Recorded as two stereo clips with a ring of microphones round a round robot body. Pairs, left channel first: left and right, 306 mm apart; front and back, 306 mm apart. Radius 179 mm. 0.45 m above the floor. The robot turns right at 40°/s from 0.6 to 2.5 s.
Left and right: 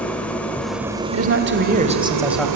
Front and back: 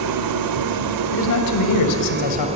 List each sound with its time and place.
0.0 s an engine running: 175° left, 1.2 m; by 2.6 s 110° right, 1.2 m
1.1 s a man speaking: 50° right, 2.5 m; by 2.5 s straight ahead, 2.5 m